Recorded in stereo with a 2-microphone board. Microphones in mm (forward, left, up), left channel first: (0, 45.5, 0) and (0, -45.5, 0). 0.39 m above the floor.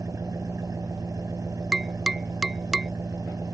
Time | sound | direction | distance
0.0 | an engine running | 35° right (ahead or behind) | ?
1.7 | tapping | 5° right (ahead or behind) | ?